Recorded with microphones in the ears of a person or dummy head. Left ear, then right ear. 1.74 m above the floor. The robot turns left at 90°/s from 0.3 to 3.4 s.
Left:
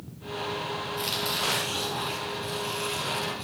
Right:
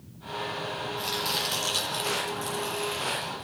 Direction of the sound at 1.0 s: 15° left.